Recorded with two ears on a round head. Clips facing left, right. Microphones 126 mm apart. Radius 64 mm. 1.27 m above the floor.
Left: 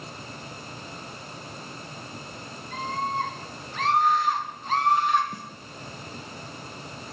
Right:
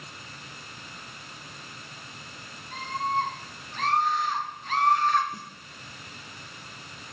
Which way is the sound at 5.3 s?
35° left (ahead or behind).